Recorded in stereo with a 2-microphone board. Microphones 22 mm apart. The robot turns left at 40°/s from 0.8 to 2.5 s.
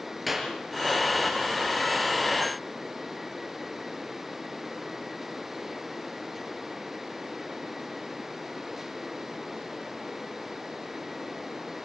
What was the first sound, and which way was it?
A clap, 5° right (ahead or behind).